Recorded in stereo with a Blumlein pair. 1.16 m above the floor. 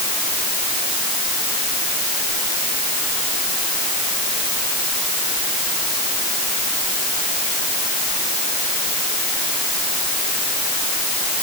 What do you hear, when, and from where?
Only background noise.